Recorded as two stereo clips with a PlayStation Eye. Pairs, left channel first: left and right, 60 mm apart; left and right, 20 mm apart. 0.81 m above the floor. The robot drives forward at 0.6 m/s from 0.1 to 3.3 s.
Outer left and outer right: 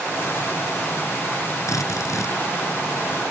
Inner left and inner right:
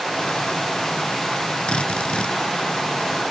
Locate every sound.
1.7 s a drill: 75° left (ahead or behind)